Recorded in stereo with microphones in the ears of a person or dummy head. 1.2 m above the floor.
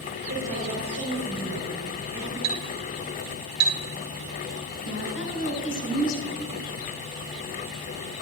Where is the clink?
55° right (ahead or behind), 3 m.